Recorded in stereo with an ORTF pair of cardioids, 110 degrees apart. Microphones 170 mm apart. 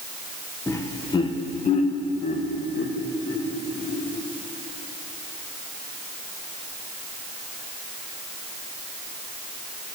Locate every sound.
0.7 s laughter: 15° left, 1.0 m; by 4.0 s 60° left, 2.5 m